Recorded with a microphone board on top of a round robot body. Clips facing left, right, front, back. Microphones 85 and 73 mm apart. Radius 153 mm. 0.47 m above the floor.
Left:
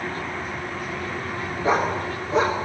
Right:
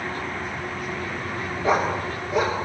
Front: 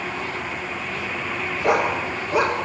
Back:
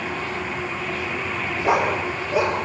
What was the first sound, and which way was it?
A dog barking, 20° left.